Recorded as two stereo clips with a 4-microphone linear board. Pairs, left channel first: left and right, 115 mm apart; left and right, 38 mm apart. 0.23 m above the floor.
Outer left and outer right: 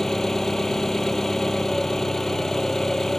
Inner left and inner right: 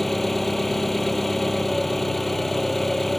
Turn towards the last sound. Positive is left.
turn(degrees=5)  # may be behind; listen again after turning